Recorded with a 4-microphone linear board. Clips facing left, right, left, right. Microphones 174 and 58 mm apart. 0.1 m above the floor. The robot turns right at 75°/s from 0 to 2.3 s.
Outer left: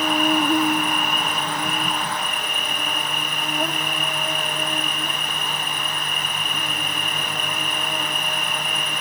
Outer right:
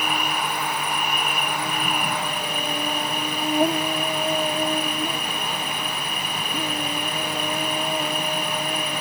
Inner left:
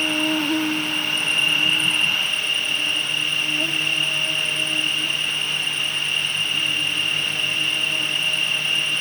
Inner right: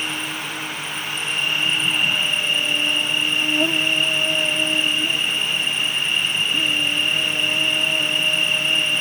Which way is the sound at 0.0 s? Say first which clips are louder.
Outer left 7 dB, inner left 6 dB; 40° left.